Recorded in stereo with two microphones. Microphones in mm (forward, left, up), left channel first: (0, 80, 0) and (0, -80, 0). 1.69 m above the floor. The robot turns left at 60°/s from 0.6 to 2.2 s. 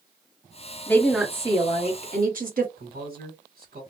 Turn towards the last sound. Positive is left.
turn(degrees=-65)  # may be behind; listen again after turning